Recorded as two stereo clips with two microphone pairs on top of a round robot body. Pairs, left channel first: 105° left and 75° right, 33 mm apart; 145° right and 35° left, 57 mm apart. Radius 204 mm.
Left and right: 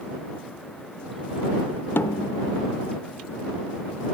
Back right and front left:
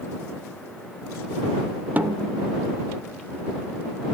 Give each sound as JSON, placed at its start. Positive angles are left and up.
{"t": 2.0, "sound": "a snare drum", "azimuth_deg": 100}